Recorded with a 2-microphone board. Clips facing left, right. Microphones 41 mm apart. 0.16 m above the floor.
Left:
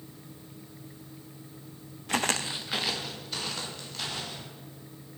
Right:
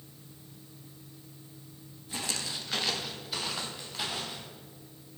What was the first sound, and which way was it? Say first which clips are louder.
Footsteps: left 8 dB; 80° left.